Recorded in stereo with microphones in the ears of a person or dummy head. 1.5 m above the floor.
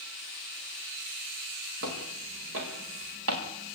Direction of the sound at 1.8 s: 70° right (ahead or behind).